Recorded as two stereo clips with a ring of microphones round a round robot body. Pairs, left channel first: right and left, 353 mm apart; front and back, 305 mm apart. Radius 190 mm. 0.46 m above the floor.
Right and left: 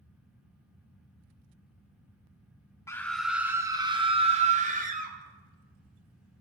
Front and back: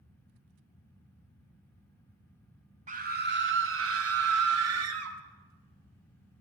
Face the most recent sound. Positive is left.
turn(degrees=155)